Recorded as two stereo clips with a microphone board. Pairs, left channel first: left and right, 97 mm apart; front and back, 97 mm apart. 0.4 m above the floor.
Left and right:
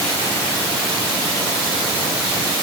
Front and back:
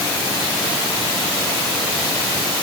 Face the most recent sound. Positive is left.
No sound to turn to.